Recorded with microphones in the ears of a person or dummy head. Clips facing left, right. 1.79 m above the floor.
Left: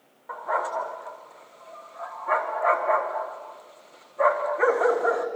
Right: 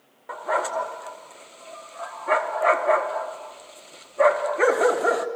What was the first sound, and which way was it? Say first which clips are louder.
A dog barking: right 3 dB; 40° right (ahead or behind).